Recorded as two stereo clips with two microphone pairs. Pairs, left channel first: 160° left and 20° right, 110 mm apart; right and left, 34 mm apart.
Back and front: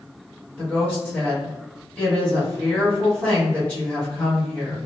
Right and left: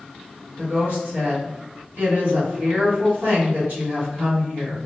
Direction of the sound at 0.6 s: 90° left.